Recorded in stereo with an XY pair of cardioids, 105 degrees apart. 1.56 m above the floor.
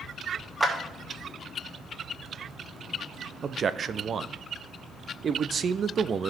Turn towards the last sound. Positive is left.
turn(degrees=-45)